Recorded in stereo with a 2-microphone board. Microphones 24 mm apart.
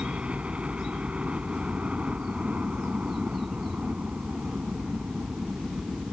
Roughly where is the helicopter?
Right.